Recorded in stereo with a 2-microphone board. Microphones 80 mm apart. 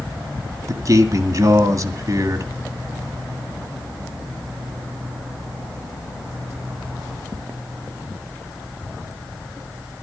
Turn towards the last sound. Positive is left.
turn(degrees=-45)  # may be behind; listen again after turning